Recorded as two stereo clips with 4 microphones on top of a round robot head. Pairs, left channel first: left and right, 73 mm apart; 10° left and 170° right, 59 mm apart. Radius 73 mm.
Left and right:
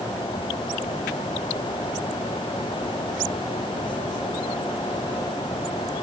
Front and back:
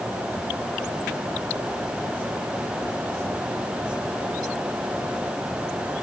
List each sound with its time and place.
Only background noise.